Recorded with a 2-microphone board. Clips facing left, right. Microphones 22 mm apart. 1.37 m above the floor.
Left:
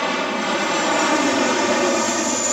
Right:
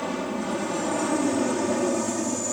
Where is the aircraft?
55° left (ahead or behind); by 2.5 s 60° left (ahead or behind).